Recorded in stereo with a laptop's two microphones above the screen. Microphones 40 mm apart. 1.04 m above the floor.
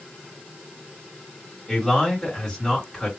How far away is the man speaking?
About 1.3 m.